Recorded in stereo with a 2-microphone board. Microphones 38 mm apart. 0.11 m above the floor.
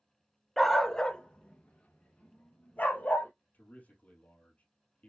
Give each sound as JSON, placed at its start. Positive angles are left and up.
{"t": 0.6, "sound": "a dog barking", "side_deg": 0, "distance_m": 0.6}
{"t": 3.5, "sound": "a man speaking", "side_deg": 40, "distance_m": 2.5}